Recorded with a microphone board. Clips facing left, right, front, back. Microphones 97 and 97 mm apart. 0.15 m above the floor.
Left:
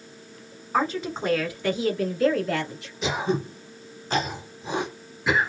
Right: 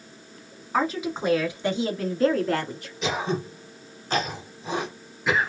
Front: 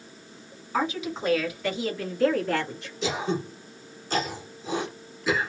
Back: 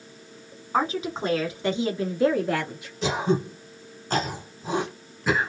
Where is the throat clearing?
175° left, 1.7 m.